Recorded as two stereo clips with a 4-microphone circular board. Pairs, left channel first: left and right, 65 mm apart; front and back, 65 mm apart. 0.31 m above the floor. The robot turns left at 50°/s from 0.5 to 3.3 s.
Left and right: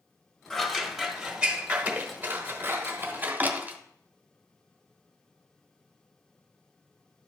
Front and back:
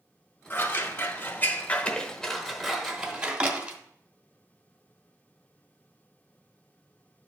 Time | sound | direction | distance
0.5 | scissors | 20° left | 1.0 m